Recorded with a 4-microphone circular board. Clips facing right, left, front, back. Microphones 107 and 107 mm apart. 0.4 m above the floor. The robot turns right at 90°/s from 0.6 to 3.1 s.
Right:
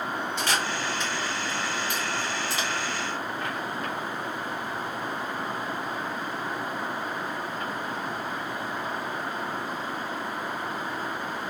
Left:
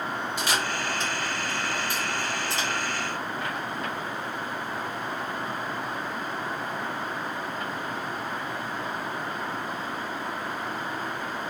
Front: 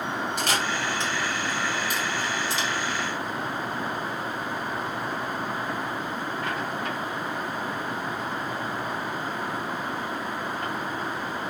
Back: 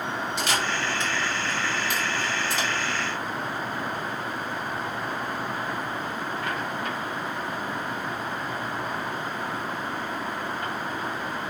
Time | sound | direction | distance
0.4 | a camera shutter | 15° left | 1.5 m